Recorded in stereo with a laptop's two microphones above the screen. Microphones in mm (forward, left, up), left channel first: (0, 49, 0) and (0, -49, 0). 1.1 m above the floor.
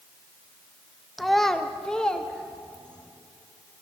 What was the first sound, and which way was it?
A child speaking, centre (ahead or behind).